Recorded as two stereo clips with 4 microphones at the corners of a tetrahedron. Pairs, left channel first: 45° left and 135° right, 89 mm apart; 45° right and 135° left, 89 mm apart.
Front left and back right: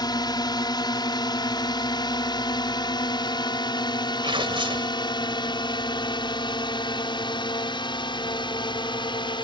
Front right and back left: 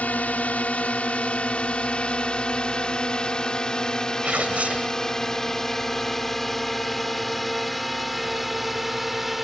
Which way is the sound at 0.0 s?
25° left.